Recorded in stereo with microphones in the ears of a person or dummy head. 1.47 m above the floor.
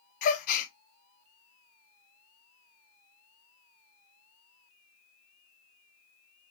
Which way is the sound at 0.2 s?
50° left (ahead or behind).